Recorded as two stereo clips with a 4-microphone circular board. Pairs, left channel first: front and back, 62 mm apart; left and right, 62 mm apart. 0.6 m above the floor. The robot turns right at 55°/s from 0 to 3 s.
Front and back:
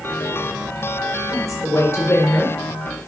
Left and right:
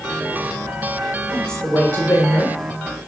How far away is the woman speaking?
About 1.4 m.